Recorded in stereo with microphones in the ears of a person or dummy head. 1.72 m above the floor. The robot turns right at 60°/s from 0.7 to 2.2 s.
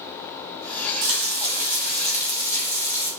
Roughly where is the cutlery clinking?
I don't hear cutlery clinking.